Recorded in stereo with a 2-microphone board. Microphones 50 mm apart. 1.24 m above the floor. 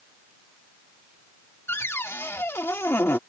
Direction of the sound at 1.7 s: 55° left (ahead or behind).